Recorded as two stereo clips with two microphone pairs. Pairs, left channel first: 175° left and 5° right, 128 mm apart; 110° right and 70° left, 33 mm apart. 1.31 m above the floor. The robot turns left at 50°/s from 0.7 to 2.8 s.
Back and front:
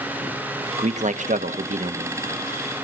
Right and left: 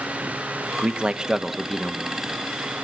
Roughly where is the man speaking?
Ahead left.